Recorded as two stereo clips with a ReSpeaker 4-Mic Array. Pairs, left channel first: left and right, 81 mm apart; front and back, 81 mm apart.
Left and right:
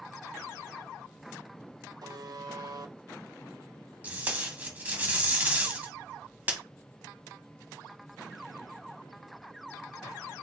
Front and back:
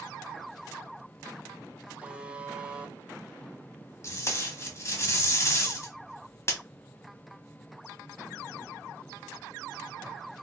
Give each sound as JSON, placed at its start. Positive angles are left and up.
{"t": 2.0, "sound": "a buzzer", "azimuth_deg": -110, "distance_m": 0.5}
{"t": 4.0, "sound": "tape being pulled", "azimuth_deg": -30, "distance_m": 0.8}